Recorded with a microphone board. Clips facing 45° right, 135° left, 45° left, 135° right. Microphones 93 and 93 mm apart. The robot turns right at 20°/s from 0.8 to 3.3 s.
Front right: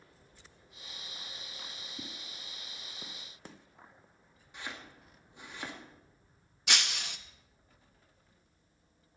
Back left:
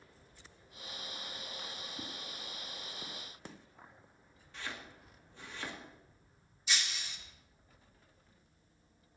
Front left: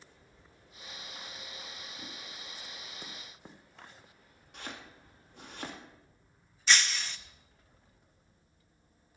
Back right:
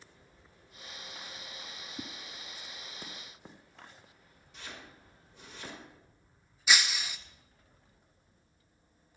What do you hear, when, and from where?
2.0 s a whoosh: 125° right, 2.5 m; by 2.1 s 120° right, 2.5 m
4.5 s chopping: 25° left, 2.5 m
6.7 s breaking glass: 55° right, 0.6 m